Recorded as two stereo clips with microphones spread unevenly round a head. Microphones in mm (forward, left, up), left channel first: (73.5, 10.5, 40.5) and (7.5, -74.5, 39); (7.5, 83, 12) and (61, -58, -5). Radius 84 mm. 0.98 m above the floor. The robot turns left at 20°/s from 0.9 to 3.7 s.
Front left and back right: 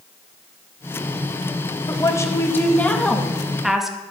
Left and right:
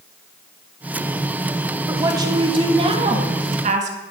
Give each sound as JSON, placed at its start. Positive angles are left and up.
{"t": 1.9, "sound": "a woman speaking", "azimuth_deg": -5, "distance_m": 1.8}